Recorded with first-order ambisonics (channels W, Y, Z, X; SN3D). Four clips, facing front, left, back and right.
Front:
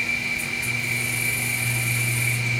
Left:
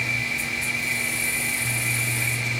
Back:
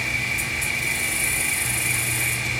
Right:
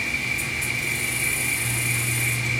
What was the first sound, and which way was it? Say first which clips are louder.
An insect: even, even; 170° right.